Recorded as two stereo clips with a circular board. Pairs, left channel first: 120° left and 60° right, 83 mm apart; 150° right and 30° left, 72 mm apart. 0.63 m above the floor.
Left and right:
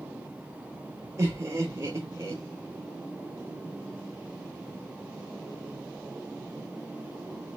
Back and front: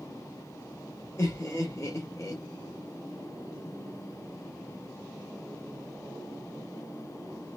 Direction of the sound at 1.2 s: 115° right.